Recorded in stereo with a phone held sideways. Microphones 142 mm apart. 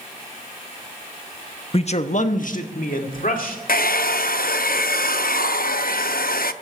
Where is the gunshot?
I don't hear a gunshot.